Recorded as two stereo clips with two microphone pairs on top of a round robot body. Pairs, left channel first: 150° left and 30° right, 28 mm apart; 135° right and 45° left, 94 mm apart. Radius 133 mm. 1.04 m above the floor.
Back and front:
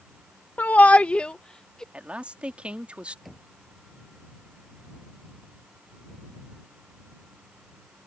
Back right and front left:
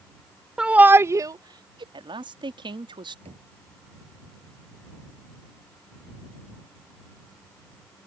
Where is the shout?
130° left; by 1.8 s 80° left.